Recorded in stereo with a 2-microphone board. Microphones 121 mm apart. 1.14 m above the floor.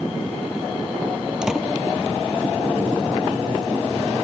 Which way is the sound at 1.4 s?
5° right (ahead or behind).